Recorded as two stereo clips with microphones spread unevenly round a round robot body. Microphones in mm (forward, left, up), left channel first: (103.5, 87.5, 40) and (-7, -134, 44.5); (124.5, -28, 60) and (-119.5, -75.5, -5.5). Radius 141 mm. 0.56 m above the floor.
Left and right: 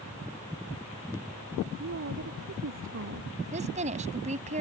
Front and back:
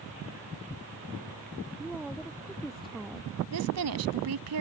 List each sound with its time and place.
1.8 s a woman speaking: 80° right
3.5 s a woman speaking: 175° left